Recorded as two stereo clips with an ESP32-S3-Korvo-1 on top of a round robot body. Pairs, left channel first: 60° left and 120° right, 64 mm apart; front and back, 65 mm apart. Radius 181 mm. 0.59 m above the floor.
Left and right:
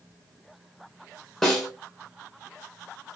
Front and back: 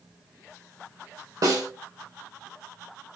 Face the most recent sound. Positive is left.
turn(degrees=145)